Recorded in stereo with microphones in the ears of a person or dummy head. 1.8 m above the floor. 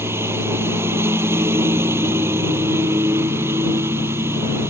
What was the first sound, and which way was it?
A lawn mower, 15° right (ahead or behind).